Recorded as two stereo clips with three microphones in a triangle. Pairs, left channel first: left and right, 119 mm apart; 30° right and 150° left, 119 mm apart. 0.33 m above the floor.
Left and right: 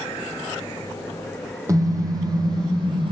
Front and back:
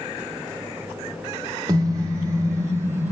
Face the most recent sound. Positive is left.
turn(degrees=-135)